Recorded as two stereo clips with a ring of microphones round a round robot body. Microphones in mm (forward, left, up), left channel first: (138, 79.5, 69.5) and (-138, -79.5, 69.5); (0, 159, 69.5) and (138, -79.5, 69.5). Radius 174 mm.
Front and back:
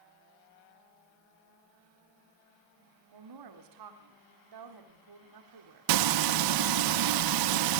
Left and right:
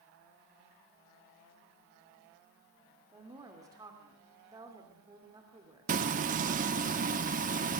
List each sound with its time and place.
3.1 s a woman speaking: 140° right, 3 m
5.9 s frying: 125° right, 1.0 m